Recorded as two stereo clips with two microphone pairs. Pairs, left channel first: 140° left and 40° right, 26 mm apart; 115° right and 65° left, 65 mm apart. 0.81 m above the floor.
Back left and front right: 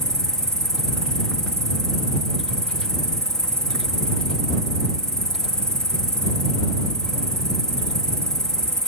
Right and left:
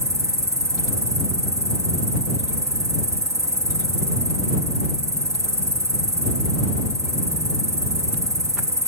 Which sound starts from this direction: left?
An insect, at 0.0 s.